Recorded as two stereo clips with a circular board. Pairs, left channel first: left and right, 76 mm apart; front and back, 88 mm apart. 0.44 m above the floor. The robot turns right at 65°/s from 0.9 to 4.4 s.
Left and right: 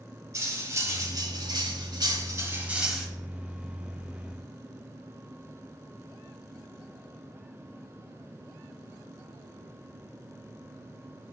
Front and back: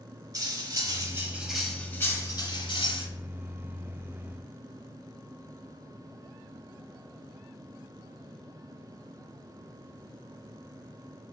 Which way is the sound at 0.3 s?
135° right.